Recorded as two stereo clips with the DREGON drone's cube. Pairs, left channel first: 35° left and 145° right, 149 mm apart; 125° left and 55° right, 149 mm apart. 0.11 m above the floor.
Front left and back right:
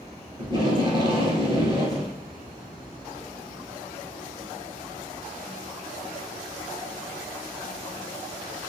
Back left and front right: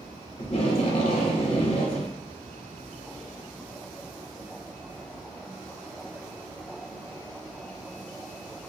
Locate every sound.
0.4 s tape being pulled: 165° left, 0.9 m